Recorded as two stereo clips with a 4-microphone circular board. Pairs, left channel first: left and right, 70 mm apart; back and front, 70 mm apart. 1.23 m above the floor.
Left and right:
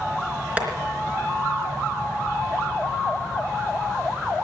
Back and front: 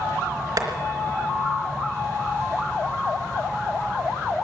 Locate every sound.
0.6 s tapping: 20° right, 3 m